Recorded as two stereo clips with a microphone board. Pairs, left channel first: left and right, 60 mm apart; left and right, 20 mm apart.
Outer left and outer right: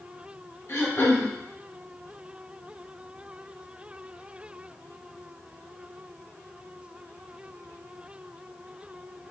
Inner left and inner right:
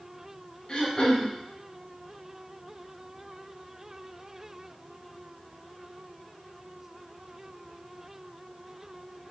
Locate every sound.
0.7 s throat clearing: 50° left (ahead or behind), 0.8 m